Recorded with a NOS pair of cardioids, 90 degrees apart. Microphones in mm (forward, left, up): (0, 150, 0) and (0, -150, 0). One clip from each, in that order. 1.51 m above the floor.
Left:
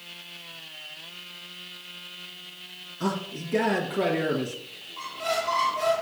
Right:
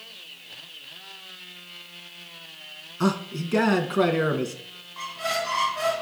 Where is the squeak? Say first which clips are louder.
Right 1 dB; 70° right, 1.8 m.